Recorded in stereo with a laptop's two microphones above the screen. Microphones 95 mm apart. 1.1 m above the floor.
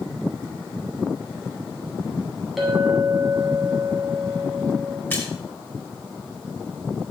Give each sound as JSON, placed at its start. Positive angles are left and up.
{"t": 2.6, "sound": "a clink", "side_deg": 0, "distance_m": 3.0}
{"t": 5.1, "sound": "a splash", "side_deg": 25, "distance_m": 5.5}